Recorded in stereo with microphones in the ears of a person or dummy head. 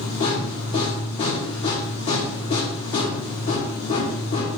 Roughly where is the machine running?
Left.